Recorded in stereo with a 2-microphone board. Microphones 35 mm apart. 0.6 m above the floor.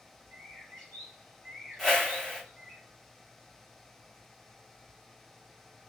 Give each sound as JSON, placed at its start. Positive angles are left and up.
{"t": 0.3, "sound": "a bird", "side_deg": 50, "distance_m": 1.8}
{"t": 1.8, "sound": "a whoosh", "side_deg": 10, "distance_m": 1.4}